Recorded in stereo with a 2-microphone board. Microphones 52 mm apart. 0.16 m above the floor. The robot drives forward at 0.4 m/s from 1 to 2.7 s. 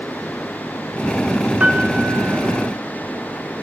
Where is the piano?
30° right (ahead or behind), 1.7 m; by 2.7 s 25° right (ahead or behind), 1.9 m.